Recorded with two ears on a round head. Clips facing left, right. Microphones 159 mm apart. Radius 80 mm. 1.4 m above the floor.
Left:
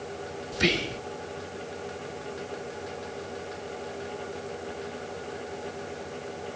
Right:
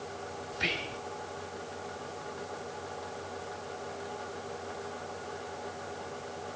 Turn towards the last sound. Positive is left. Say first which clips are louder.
# left 12 dB
turn(degrees=65)  # may be behind; listen again after turning